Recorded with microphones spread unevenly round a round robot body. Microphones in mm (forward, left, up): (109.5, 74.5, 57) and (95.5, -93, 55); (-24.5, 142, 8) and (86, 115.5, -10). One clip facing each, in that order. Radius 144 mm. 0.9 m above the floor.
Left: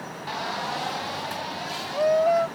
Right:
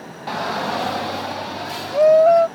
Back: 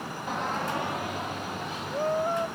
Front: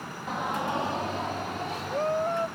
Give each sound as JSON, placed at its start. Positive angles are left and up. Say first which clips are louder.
{"t": 0.3, "sound": "a shout", "louder": "right 8 dB, front 1 dB", "azimuth_deg": -100}